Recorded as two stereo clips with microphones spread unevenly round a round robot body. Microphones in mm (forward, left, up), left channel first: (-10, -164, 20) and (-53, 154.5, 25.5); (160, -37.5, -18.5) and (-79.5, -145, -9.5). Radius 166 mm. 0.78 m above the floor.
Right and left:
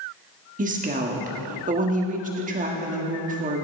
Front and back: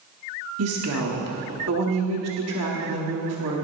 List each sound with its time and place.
0.6 s a woman speaking: 165° left, 1.5 m